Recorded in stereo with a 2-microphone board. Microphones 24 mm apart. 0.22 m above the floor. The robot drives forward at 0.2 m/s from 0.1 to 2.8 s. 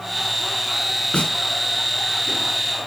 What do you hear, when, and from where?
1.1 s a snare drum: 65° left (ahead or behind), 1.1 m